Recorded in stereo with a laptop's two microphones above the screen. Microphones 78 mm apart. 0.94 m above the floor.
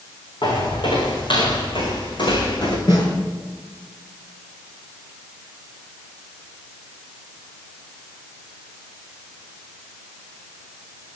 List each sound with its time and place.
0.4 s footsteps: 75° left (ahead or behind), 4 m; by 2.8 s 65° left (ahead or behind), 4 m
2.9 s a snare drum: 60° left (ahead or behind), 5.5 m